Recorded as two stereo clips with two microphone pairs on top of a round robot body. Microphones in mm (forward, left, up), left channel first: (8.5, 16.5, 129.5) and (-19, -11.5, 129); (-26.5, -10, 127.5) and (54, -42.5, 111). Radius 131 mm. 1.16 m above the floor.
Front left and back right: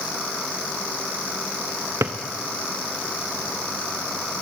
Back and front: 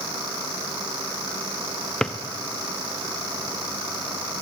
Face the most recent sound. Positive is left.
turn(degrees=-130)